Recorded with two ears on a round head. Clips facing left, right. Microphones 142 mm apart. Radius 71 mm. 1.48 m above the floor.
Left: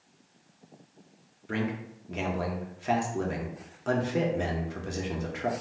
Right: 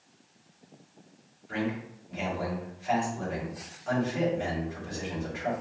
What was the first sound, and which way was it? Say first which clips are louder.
A man speaking: even; 65° left (ahead or behind).